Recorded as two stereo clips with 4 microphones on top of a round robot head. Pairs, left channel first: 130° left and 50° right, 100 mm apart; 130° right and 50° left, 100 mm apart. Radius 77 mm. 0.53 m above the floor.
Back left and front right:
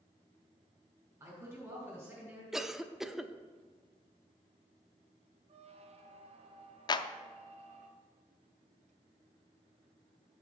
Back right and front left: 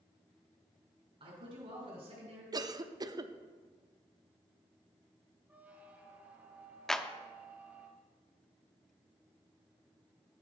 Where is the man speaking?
15° left, 3.5 m; by 2.4 s 25° left, 4 m.